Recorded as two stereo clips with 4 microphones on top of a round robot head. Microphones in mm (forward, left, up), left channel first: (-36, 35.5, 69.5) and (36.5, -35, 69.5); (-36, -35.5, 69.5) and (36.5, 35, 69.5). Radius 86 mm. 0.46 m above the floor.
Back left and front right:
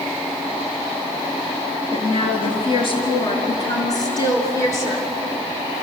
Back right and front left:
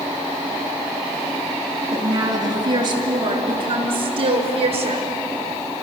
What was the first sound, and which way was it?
A woman speaking, 105° left.